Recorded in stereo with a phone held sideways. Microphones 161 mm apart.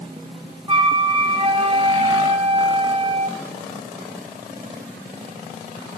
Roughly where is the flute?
Right.